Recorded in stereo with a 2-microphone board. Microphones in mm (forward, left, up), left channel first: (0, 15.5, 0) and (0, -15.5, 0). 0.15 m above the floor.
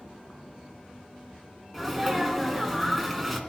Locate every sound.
1.7 s a sneeze: centre (ahead or behind), 1.7 m